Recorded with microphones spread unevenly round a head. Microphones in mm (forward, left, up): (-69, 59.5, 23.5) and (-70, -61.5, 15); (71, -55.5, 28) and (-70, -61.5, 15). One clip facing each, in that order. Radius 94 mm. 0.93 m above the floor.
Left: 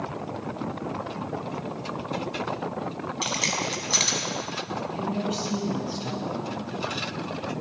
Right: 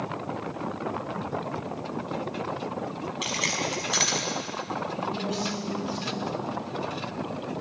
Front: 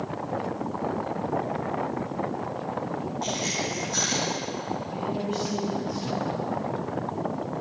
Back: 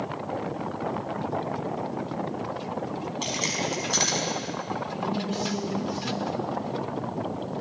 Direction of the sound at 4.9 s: 115° left.